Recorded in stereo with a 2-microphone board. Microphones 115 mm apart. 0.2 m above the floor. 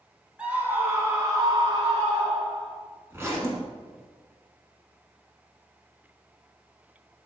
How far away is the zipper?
About 1.3 m.